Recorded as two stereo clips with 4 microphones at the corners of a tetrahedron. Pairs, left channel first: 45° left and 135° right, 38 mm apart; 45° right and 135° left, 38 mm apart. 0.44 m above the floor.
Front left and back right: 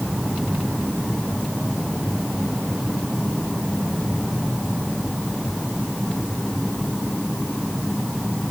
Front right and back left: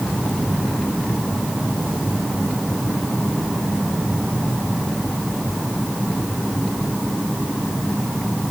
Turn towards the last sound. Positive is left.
No sound to turn to.